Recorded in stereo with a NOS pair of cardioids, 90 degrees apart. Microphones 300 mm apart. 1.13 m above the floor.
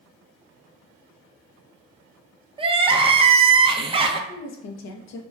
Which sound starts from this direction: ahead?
Crying, at 2.6 s.